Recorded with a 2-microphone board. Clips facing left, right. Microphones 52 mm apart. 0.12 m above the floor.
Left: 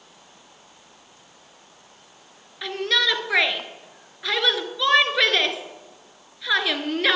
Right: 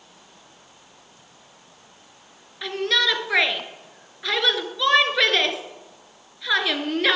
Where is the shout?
Centre (ahead or behind), 1.5 m.